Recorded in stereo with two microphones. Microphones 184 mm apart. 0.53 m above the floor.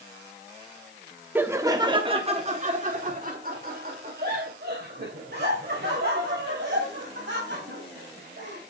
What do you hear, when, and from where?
1.4 s laughter: 10° right (ahead or behind), 1.0 m; by 8.6 s 70° right (ahead or behind), 4.5 m